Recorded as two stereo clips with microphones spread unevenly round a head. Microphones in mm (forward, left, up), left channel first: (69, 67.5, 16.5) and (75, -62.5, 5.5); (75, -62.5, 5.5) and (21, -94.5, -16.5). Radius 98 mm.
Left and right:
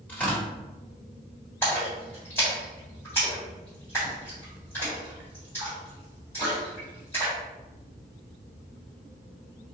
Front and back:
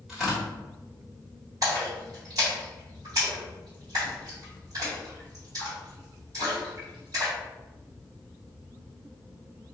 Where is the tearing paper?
60° left, 1.3 m.